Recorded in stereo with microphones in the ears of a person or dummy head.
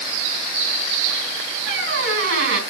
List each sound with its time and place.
1.7 s a squeak: 70° right (ahead or behind), 4 m